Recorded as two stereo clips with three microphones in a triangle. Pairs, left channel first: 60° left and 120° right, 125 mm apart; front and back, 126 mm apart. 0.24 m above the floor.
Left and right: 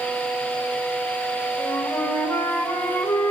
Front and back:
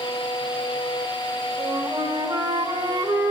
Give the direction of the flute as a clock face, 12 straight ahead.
8 o'clock.